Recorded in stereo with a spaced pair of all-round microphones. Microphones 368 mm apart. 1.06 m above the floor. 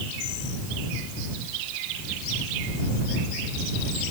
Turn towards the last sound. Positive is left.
No sound to turn to.